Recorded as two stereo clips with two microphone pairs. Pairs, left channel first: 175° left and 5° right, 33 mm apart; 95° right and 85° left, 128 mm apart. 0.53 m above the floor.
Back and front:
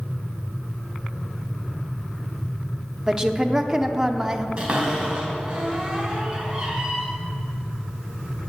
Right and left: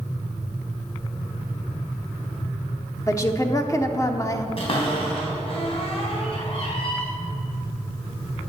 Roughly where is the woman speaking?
Ahead right.